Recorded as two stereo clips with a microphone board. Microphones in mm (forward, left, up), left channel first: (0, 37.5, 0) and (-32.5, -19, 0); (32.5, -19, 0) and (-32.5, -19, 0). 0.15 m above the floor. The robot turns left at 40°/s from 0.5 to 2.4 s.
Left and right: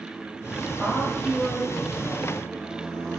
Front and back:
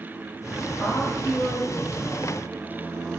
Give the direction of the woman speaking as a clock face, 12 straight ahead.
11 o'clock.